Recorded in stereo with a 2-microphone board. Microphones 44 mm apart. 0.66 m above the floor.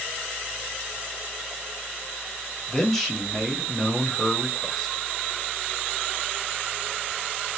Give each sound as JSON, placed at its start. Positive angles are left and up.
{"t": 2.7, "sound": "a man speaking", "side_deg": 5, "distance_m": 1.2}